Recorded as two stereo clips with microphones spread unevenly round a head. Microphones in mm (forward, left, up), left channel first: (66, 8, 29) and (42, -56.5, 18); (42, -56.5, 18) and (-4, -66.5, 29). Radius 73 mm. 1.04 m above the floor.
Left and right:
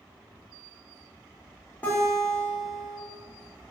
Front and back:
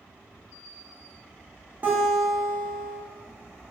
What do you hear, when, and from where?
1.8 s a guitar: 140° left, 0.6 m